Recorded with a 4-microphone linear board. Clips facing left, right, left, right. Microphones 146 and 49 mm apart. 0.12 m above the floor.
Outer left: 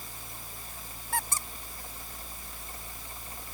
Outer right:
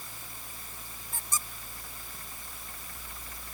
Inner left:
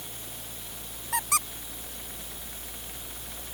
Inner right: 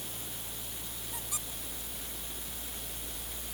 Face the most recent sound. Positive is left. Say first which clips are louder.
# outer left 6 dB, inner left 18 dB
turn(degrees=75)  # may be behind; listen again after turning